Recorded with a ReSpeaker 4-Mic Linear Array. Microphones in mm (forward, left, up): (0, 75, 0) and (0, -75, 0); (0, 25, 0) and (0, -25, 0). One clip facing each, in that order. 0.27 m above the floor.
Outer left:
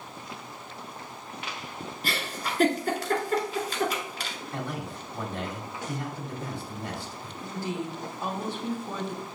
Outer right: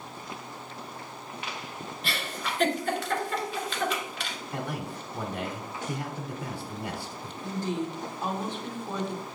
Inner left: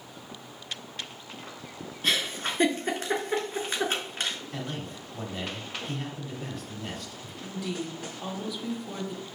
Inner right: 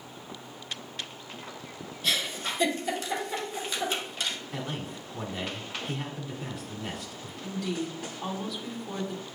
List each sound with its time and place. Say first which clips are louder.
2.0 s a giggle: outer left 1 dB, inner left 2 dB; 40° left (ahead or behind), 1.0 m
4.5 s a man speaking: outer right 1 dB, even; 10° right (ahead or behind), 1.0 m
7.4 s a woman speaking: outer right 2 dB, inner right 2 dB; 5° left (ahead or behind), 0.9 m